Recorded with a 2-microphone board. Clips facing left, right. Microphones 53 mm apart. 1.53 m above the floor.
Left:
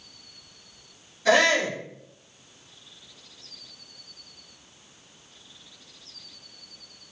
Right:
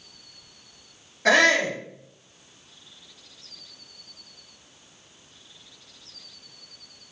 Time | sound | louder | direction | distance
1.2 | a shout | right 1 dB | 60° right (ahead or behind) | 2 m